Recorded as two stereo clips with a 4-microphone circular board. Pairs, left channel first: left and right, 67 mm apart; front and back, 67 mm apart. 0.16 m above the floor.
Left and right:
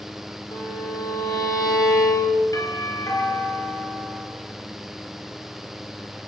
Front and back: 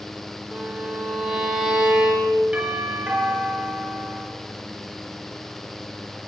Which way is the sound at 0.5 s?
100° left.